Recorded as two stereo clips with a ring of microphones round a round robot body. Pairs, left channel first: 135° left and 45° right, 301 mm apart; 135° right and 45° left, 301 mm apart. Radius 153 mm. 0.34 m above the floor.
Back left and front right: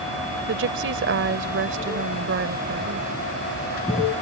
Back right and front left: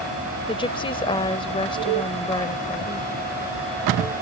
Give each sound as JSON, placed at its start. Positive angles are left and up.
{"t": 0.5, "sound": "a woman speaking", "azimuth_deg": -70}